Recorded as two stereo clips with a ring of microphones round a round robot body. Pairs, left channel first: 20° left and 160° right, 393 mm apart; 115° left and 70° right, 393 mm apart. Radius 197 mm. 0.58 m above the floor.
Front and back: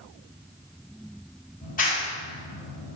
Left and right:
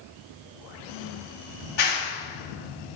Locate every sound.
1.6 s a clap: 90° left, 3.5 m